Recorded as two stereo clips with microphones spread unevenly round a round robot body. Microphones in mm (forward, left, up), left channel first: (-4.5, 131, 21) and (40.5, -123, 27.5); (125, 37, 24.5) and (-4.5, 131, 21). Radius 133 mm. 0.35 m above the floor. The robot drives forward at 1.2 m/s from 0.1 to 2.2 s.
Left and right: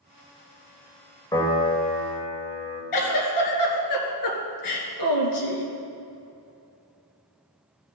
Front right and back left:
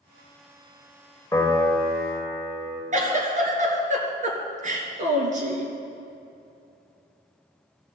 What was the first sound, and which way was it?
A piano, 30° left.